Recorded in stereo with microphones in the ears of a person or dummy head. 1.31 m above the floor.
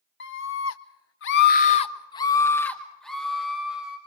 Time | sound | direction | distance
0.2 | a scream | 65° left (ahead or behind) | 1.7 m